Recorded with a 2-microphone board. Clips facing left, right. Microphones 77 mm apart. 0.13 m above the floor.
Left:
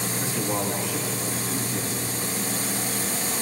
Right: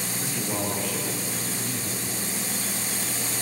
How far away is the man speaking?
About 8 m.